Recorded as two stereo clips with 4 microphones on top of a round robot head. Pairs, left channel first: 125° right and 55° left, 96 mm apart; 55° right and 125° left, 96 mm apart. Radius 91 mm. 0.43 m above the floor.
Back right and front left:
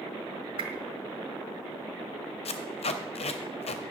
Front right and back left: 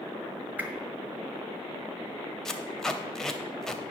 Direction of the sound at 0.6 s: 55° left.